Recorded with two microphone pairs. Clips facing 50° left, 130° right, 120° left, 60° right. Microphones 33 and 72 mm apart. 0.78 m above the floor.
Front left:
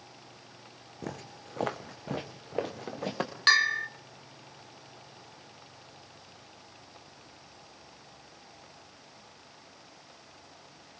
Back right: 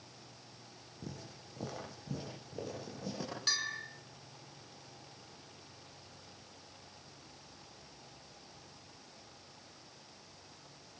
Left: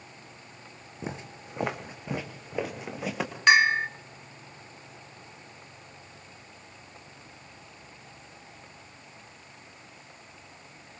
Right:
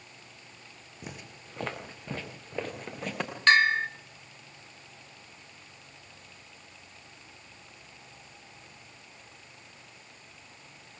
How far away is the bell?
About 0.8 m.